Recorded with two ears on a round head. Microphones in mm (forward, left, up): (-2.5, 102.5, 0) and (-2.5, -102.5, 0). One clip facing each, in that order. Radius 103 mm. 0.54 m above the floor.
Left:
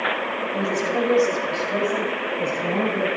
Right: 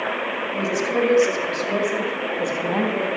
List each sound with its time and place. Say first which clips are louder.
0.5 s a woman speaking: right 1 dB; 15° right (ahead or behind), 2 m; by 3.1 s 70° right (ahead or behind), 3 m